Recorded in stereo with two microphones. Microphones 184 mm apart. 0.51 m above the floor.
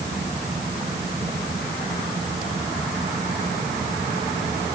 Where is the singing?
No singing in this recording.